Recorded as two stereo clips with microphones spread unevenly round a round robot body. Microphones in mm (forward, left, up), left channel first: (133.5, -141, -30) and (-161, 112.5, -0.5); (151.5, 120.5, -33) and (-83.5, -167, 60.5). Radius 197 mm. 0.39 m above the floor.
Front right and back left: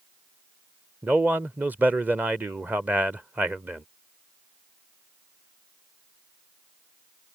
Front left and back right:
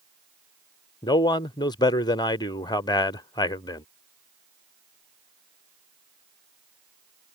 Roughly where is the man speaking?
Ahead left.